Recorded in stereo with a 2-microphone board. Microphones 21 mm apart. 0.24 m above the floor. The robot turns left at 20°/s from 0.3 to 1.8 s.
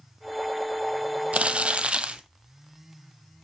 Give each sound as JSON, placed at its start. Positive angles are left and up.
{"t": 1.3, "sound": "crumpling", "side_deg": -65, "distance_m": 1.1}